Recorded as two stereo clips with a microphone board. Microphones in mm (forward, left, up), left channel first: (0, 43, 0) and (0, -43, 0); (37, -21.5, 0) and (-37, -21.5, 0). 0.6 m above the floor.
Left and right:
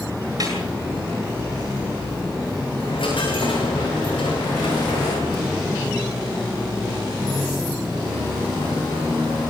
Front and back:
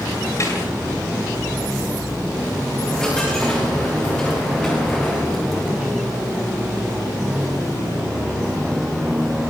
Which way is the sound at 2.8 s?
80° left.